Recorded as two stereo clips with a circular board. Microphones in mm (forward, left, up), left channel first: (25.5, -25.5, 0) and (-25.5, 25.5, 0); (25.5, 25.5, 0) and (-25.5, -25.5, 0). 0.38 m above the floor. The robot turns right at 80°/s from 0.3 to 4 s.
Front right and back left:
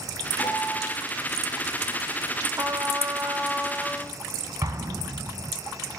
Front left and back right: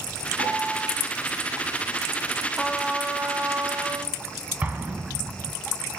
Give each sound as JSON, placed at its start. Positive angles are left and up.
{"t": 0.4, "sound": "a piano", "azimuth_deg": -160, "distance_m": 3.5}
{"t": 2.6, "sound": "a trumpet", "azimuth_deg": 125, "distance_m": 0.5}
{"t": 4.6, "sound": "an explosion", "azimuth_deg": 160, "distance_m": 1.0}